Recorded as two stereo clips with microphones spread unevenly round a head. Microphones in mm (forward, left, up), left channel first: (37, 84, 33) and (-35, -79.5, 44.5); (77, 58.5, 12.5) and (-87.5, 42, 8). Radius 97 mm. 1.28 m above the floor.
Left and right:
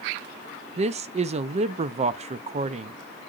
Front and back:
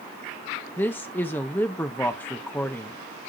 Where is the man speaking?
70° right, 0.5 m.